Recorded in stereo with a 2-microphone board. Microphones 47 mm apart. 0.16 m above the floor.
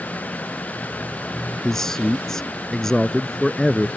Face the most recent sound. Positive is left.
turn(degrees=10)  # may be behind; listen again after turning